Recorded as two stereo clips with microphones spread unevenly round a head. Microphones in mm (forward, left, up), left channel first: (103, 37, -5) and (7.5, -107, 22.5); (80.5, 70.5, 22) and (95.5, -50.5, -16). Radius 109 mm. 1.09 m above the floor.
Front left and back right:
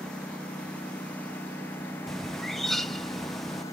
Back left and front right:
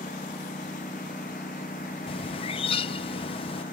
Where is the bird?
125° left.